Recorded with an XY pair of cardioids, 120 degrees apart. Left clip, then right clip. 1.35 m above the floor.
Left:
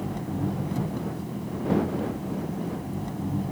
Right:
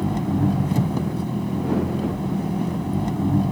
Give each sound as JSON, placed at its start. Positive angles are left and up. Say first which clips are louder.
{"t": 0.0, "sound": "an engine running", "louder": "right 7 dB", "azimuth_deg": -50}